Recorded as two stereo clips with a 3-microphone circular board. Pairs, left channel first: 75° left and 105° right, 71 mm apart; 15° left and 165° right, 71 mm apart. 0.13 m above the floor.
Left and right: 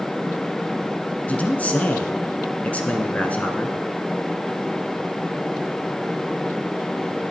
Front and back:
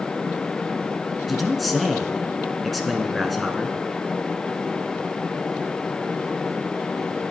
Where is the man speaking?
105° left, 1.2 m.